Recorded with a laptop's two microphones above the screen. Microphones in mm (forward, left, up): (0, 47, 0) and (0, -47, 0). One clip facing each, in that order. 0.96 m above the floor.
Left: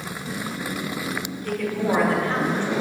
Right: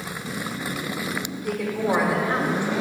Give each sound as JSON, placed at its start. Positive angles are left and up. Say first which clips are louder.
{"t": 1.4, "sound": "a woman speaking", "louder": "even", "side_deg": -15, "distance_m": 1.6}